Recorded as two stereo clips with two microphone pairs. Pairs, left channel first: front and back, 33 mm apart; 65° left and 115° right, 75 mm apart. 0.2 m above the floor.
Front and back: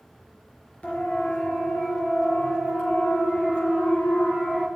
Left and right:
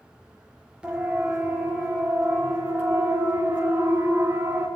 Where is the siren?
40° right, 3.5 m; by 4.7 s 50° right, 6.5 m.